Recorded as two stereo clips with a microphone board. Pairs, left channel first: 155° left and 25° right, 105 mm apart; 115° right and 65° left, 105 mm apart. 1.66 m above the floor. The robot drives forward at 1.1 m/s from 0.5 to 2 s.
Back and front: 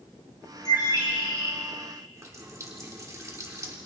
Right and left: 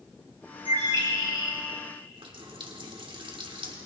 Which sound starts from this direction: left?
A bird, at 0.7 s.